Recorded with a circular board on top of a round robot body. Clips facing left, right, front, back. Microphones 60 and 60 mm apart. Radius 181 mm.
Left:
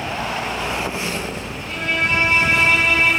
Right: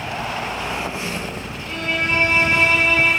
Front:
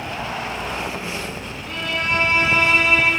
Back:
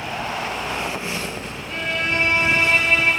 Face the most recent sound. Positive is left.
turn(degrees=10)